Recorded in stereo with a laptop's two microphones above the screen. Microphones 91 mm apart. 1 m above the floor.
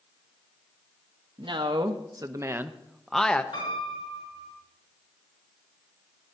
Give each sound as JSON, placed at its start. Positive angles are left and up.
{"t": 1.4, "sound": "a man speaking", "side_deg": -65, "distance_m": 1.1}
{"t": 3.5, "sound": "a piano", "side_deg": 85, "distance_m": 6.0}